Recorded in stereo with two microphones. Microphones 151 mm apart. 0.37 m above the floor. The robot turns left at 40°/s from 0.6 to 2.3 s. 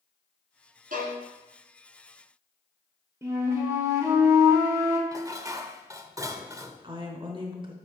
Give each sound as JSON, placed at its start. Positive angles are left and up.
{"t": 0.9, "sound": "a violin", "side_deg": -70, "distance_m": 1.9}
{"t": 3.2, "sound": "a flute", "side_deg": -20, "distance_m": 1.3}
{"t": 5.1, "sound": "dishes clattering", "side_deg": -20, "distance_m": 0.5}
{"t": 6.8, "sound": "a woman speaking", "side_deg": -35, "distance_m": 1.1}